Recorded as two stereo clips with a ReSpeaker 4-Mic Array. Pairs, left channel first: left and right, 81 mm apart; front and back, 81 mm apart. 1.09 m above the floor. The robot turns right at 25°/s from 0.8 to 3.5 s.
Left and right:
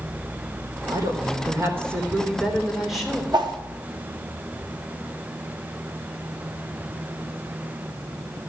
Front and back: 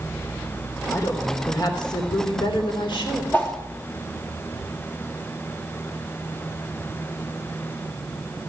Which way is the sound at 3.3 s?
65° right.